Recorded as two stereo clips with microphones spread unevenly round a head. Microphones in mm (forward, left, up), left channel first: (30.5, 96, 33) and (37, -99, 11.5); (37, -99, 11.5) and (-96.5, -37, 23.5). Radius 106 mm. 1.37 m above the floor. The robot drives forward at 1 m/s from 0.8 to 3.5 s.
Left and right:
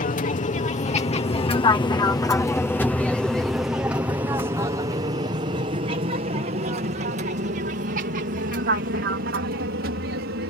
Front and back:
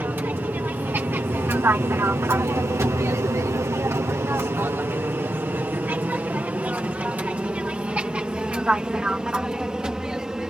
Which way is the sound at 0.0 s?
80° left.